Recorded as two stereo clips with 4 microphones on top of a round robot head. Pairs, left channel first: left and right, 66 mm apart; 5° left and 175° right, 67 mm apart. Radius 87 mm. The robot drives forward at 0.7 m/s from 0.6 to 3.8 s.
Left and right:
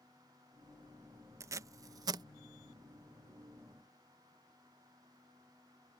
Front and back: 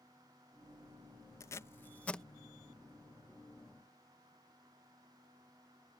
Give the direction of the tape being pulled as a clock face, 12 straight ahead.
2 o'clock.